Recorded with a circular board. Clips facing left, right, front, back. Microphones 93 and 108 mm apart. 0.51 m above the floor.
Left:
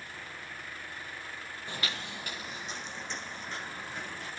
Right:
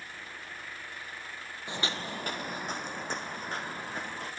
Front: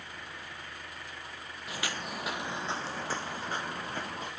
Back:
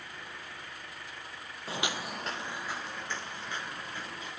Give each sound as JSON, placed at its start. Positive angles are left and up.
{"t": 1.7, "sound": "footsteps", "azimuth_deg": -150, "distance_m": 0.6}